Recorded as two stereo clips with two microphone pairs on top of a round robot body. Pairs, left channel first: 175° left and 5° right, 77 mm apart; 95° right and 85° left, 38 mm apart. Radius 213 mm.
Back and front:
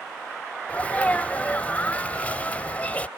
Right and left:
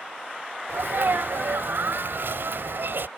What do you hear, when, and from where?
0.7 s a sneeze: 105° left